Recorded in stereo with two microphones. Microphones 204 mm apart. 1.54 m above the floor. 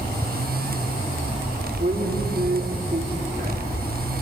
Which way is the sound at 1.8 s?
35° right (ahead or behind).